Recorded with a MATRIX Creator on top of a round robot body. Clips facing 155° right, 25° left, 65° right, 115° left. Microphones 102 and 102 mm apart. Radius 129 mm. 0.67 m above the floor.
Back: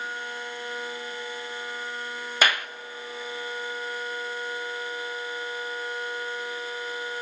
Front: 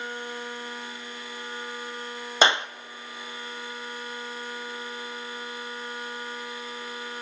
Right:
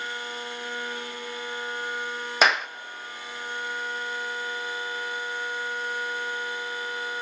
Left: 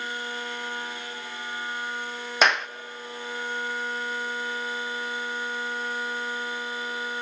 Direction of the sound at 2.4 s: 20° left.